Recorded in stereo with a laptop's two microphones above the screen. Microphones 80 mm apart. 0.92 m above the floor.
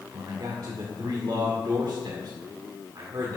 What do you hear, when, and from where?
0.1 s a man speaking: 60° right (ahead or behind), 2 m